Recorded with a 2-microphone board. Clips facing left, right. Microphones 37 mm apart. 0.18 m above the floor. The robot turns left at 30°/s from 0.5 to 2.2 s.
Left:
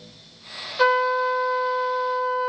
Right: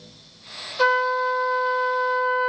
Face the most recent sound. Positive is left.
turn(degrees=-30)